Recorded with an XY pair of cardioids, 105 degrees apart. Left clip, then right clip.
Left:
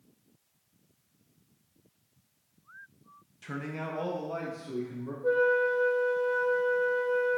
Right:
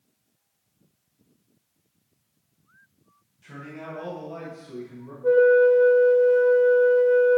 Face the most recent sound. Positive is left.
turn(degrees=-10)